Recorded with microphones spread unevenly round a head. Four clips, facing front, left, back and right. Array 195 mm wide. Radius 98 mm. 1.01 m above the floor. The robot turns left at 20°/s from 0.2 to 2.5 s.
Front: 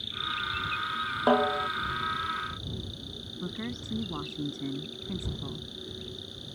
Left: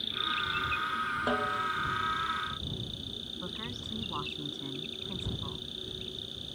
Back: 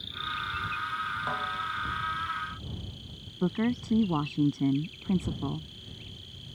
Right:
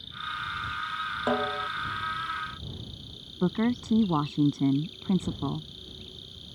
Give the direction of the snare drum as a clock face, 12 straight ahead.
1 o'clock.